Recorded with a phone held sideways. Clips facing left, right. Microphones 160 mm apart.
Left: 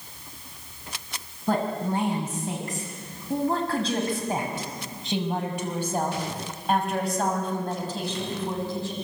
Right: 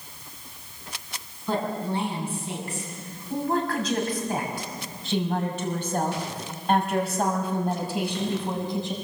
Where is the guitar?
I don't hear a guitar.